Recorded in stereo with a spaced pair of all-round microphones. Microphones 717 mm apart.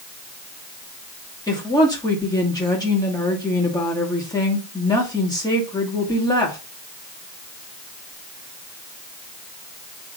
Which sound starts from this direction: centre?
A woman speaking, at 1.5 s.